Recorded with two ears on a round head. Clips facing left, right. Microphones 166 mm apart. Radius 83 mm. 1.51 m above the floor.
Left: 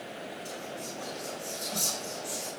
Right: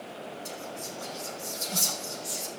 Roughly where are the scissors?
I don't hear scissors.